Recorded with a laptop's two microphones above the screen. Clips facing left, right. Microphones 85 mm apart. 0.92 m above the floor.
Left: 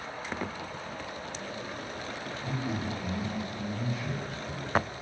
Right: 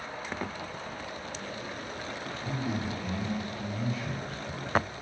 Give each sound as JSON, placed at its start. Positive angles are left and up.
{"t": 2.4, "sound": "a man speaking", "side_deg": -25, "distance_m": 1.1}